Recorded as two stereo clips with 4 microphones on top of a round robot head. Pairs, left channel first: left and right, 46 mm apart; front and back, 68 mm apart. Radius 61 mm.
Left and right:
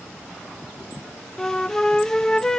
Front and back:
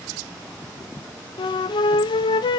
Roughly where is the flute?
Ahead.